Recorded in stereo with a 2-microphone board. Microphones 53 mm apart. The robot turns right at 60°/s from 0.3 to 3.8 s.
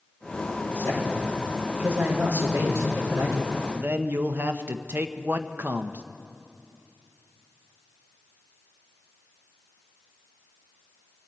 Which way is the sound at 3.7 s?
35° right (ahead or behind).